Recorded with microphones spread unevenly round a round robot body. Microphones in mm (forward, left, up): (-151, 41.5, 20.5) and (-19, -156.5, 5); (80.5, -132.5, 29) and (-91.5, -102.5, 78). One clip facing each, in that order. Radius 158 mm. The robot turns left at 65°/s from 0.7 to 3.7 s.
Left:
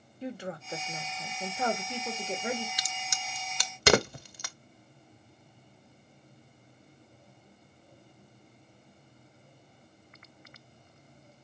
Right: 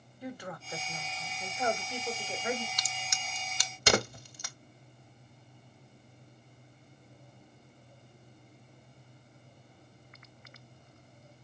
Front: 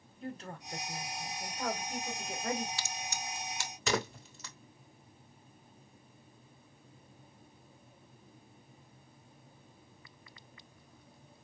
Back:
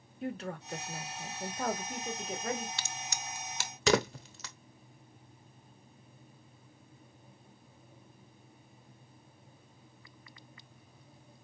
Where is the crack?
155° right, 0.6 m; by 4.5 s 145° left, 0.6 m.